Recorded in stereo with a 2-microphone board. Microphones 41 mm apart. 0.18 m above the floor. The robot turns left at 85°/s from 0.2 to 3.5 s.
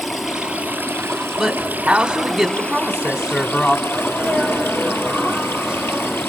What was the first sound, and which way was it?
Running water, straight ahead.